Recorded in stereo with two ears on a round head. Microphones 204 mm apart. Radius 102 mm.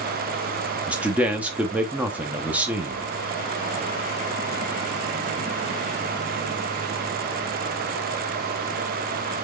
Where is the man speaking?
5° right (ahead or behind), 0.5 m.